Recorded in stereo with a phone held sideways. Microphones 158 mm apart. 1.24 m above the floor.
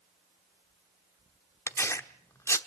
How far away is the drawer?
I don't hear a drawer.